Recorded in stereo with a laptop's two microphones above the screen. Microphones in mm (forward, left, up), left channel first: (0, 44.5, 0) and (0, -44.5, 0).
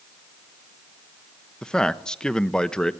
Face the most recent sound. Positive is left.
turn(degrees=10)  # may be behind; listen again after turning